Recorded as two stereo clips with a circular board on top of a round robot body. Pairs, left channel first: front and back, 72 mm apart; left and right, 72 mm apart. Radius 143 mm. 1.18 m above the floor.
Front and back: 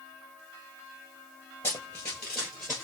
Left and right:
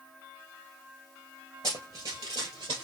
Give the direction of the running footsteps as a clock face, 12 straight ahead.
2 o'clock.